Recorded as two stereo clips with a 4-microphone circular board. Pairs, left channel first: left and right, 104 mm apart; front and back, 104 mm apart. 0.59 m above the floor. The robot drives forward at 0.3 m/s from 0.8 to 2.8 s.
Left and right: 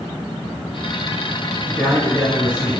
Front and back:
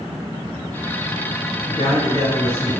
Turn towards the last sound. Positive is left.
turn(degrees=25)